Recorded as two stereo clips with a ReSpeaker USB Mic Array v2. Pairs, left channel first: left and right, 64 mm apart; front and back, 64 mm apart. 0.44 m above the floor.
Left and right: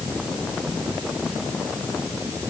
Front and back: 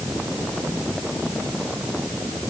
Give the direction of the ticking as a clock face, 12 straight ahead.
I don't hear ticking.